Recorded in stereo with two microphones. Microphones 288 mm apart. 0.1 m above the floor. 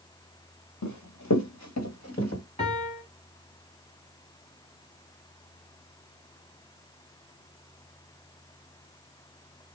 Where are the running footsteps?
90° left, 0.9 m; by 2.4 s 45° left (ahead or behind), 1.4 m.